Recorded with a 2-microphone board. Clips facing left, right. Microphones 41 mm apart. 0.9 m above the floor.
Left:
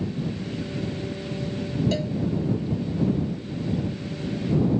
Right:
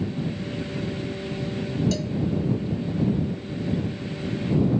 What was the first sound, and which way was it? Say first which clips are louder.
A cowbell: left 1 dB; 25° left (ahead or behind).